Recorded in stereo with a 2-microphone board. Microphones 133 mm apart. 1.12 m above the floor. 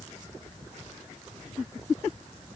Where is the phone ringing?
No phone ringing in this recording.